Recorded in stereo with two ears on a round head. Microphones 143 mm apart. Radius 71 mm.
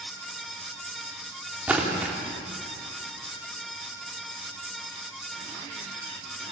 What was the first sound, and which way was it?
A splash, 10° right (ahead or behind).